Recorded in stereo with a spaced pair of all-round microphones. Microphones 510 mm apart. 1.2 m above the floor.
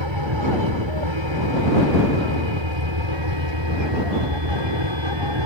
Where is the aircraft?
65° right (ahead or behind); by 5.5 s 60° right (ahead or behind).